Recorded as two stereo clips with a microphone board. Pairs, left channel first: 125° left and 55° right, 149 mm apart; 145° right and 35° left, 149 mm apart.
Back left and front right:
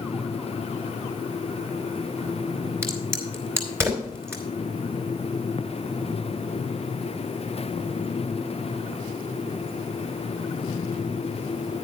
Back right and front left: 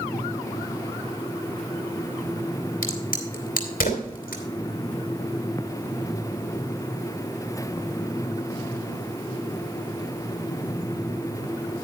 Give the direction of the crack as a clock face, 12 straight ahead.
4 o'clock.